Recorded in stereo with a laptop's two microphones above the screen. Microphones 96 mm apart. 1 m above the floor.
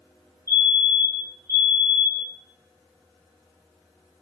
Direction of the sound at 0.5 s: 30° left (ahead or behind).